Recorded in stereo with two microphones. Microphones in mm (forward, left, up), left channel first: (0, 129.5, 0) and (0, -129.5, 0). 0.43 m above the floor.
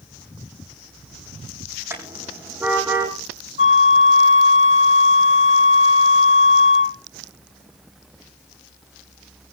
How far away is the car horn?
About 8 m.